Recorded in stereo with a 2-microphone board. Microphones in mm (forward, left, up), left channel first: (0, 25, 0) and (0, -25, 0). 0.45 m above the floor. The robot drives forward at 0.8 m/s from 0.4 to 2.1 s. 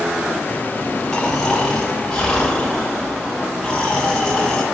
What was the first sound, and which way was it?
Snoring, 15° left (ahead or behind).